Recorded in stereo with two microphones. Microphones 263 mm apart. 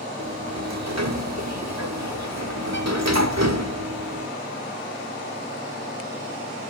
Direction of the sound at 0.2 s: 80° right.